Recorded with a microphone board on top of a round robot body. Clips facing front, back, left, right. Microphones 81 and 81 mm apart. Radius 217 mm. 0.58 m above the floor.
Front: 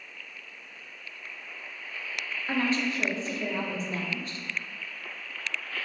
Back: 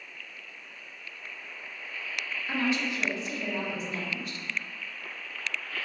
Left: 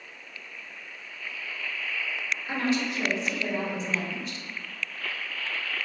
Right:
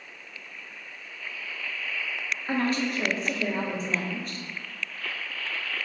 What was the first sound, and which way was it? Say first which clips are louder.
A woman speaking: front 2 dB, right 1 dB; 50° right.